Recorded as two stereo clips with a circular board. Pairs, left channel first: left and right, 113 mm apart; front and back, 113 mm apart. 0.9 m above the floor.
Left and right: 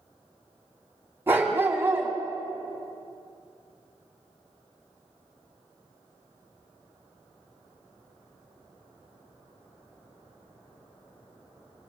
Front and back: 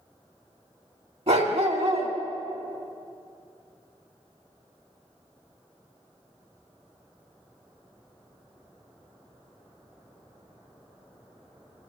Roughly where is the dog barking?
Behind.